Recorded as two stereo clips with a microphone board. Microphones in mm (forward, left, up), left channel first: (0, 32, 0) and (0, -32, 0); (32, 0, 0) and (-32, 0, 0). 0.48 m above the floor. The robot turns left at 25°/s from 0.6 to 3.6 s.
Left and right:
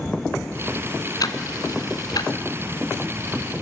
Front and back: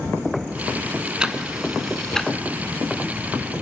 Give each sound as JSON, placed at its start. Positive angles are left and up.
{"t": 1.2, "sound": "ticking", "azimuth_deg": 105, "distance_m": 1.4}